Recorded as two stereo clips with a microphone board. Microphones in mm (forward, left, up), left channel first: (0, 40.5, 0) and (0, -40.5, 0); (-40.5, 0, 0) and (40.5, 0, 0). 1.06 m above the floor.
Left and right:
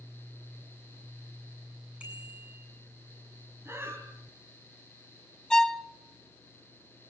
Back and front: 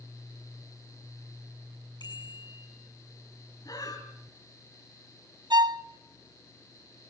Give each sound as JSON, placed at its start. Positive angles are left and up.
{"t": 2.0, "sound": "a bicycle bell", "azimuth_deg": -165, "distance_m": 7.0}
{"t": 3.6, "sound": "breathing", "azimuth_deg": -145, "distance_m": 3.0}
{"t": 5.5, "sound": "a violin", "azimuth_deg": 10, "distance_m": 0.6}